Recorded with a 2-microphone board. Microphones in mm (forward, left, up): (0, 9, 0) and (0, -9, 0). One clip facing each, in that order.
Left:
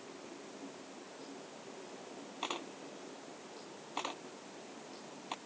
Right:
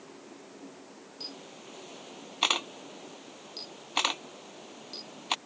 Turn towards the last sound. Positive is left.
turn(degrees=-65)  # may be behind; listen again after turning